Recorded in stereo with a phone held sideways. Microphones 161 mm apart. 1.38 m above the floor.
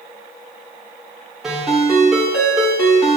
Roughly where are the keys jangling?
I don't hear keys jangling.